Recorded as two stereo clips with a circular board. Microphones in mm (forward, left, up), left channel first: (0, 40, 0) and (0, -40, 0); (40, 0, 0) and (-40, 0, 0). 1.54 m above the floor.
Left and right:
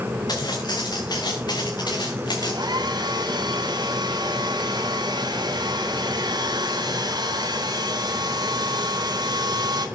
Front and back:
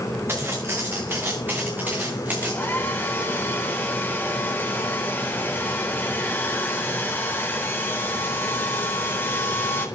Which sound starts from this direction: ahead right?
A hair dryer, at 2.4 s.